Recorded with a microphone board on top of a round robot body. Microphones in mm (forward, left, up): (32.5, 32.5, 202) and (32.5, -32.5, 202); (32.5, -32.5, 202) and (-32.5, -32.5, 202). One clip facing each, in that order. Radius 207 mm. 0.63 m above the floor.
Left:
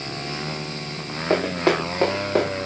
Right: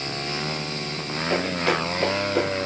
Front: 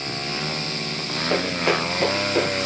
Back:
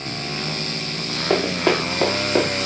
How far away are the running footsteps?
About 5.5 m.